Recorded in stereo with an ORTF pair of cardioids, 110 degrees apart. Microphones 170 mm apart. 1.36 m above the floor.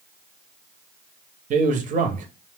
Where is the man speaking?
50° right, 0.8 m.